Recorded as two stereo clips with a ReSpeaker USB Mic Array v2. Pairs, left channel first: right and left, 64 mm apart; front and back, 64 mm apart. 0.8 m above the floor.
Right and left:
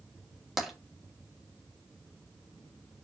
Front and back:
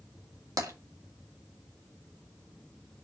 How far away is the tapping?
About 2 m.